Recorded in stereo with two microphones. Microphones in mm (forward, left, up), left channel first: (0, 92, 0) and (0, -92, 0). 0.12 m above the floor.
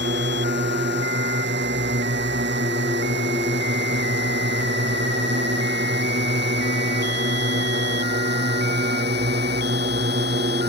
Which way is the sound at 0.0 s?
75° right (ahead or behind).